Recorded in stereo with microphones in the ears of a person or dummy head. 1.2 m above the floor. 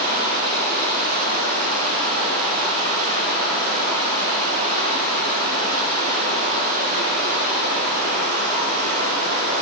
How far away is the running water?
About 7 m.